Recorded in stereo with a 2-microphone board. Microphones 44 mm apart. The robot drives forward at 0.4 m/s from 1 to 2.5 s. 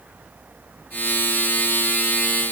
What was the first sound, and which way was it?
Only background noise.